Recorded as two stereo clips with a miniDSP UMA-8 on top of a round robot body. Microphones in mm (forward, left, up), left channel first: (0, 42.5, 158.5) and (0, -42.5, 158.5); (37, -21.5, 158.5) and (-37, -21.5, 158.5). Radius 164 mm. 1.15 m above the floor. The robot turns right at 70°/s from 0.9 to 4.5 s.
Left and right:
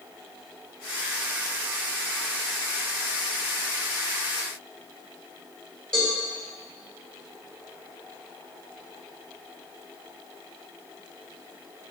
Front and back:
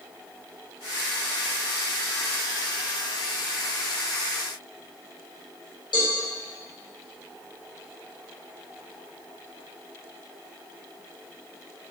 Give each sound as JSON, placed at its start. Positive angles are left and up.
{"t": 5.9, "sound": "a cowbell", "azimuth_deg": 10, "distance_m": 3.0}